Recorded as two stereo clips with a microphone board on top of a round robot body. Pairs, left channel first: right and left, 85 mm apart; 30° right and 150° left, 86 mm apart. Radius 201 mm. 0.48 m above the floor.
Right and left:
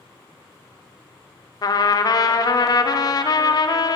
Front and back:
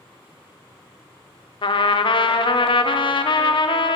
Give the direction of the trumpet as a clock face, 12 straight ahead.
2 o'clock.